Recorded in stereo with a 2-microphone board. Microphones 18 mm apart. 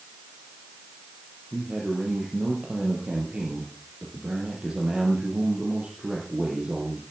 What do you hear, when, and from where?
1.5 s a man speaking: 75° right (ahead or behind), 4.5 m